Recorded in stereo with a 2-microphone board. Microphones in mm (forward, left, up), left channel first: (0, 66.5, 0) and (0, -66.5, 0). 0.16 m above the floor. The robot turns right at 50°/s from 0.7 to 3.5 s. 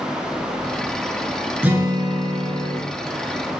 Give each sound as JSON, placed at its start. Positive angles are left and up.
{"t": 1.6, "sound": "a guitar", "azimuth_deg": -165, "distance_m": 0.7}